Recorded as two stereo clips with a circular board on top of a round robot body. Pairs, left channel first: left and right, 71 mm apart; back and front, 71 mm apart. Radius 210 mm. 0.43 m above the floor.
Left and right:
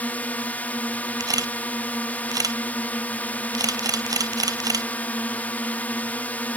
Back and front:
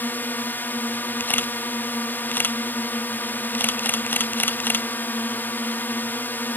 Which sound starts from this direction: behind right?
A camera shutter, at 1.2 s.